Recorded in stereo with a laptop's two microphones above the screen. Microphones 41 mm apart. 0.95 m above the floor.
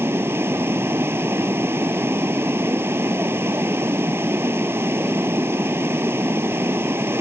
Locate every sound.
0.0 s running water: 80° right